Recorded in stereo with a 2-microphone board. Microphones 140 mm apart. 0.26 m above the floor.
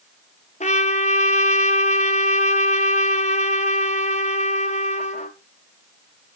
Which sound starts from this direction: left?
A trumpet, at 0.6 s.